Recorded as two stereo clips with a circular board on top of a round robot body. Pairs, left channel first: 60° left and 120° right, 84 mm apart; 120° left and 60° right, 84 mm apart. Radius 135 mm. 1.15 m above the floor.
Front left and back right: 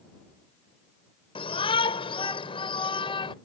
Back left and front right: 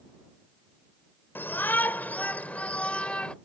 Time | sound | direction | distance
1.4 | a shout | 50° left | ?